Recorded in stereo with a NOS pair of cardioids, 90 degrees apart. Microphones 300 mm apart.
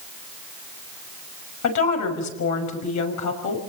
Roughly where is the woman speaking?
Left.